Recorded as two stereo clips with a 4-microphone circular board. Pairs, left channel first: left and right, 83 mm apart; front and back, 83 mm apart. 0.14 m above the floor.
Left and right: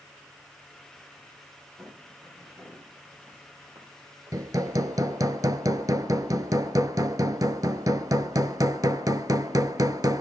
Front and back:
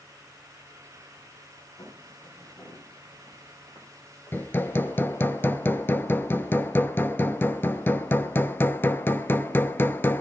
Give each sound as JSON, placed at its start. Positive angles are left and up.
{"t": 1.8, "sound": "footsteps", "azimuth_deg": -40, "distance_m": 10.0}
{"t": 4.3, "sound": "hammering", "azimuth_deg": -60, "distance_m": 0.6}